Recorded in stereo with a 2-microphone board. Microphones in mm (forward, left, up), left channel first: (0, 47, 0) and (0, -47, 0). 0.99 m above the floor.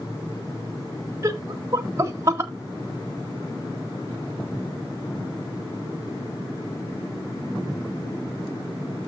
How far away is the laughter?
About 1.7 m.